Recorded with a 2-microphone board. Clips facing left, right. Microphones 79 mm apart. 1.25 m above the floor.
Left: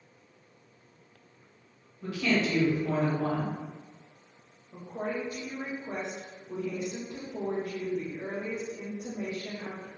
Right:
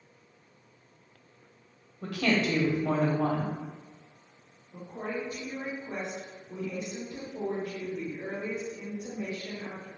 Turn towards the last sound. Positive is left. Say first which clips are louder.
# left 2 dB
turn(degrees=65)  # may be behind; listen again after turning